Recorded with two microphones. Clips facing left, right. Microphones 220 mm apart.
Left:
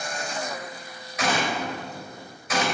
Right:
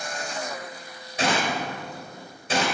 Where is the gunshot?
30° right (ahead or behind), 2.5 m.